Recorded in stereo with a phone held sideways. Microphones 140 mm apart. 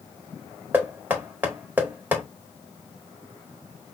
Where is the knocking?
15° right (ahead or behind), 1.5 m.